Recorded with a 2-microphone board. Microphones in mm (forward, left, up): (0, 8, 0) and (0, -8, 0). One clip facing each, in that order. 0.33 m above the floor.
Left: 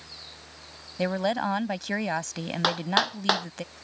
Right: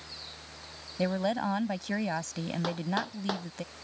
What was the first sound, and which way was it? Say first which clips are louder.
A woman speaking: left 3 dB; 25° left (ahead or behind).